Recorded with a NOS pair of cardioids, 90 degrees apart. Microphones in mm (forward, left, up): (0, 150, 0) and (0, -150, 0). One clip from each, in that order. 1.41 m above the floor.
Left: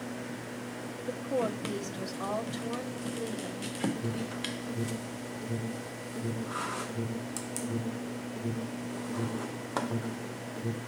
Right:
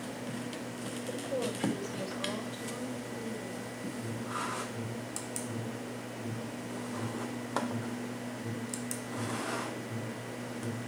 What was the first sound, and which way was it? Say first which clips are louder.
A woman speaking: left 4 dB; 35° left.